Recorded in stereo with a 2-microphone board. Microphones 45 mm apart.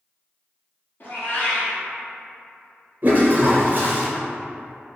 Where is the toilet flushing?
40° right (ahead or behind), 0.8 m.